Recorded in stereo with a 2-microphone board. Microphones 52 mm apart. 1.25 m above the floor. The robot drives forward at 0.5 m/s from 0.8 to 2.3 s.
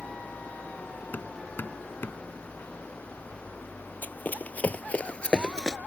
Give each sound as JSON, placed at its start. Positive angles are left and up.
{"t": 0.0, "sound": "an engine running", "side_deg": 15}
{"t": 1.1, "sound": "hammering", "side_deg": 40}
{"t": 4.0, "sound": "running footsteps", "side_deg": 40}